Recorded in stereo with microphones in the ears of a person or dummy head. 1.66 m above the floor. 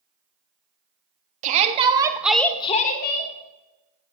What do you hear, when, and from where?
1.4 s a shout: 40° right (ahead or behind), 1.2 m; by 3.3 s 65° left (ahead or behind), 1.0 m